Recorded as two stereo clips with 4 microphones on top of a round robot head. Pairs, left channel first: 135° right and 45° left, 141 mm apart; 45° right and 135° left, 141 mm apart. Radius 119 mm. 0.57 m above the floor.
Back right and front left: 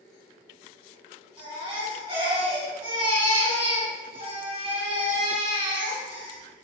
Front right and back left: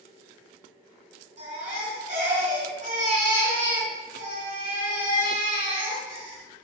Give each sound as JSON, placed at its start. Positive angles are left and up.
{"t": 1.4, "sound": "a baby crying", "azimuth_deg": 100, "distance_m": 3.5}